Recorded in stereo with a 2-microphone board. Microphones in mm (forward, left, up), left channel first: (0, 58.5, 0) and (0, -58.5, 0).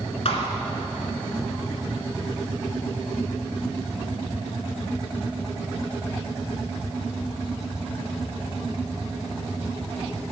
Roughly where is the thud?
Left.